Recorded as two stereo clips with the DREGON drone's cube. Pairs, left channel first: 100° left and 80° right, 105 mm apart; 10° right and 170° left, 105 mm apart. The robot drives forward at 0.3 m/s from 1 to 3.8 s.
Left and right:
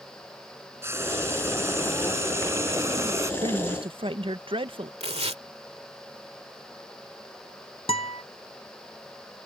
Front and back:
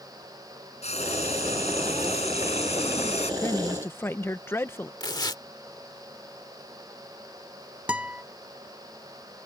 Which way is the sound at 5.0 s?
60° right.